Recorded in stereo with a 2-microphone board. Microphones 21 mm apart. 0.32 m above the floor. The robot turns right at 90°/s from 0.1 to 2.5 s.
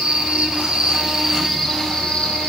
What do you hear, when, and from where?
0.0 s an insect: 115° right, 7.5 m; by 2.5 s 100° left, 7.5 m